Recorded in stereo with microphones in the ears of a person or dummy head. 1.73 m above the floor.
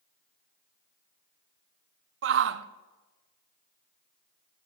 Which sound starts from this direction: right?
A shout, at 2.2 s.